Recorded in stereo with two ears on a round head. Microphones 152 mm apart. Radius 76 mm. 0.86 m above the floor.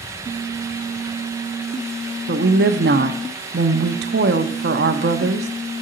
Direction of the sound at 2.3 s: 65° right (ahead or behind).